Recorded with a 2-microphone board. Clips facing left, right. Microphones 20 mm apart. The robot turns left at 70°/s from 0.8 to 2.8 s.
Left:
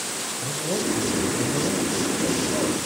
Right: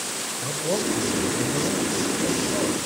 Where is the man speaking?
80° right, 3.5 m; by 2.9 s 140° left, 3.5 m.